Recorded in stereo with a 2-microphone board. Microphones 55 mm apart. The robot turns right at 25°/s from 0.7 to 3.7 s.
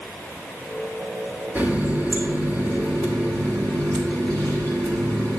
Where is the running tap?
145° right, 2.5 m; by 5.4 s 95° right, 2.5 m.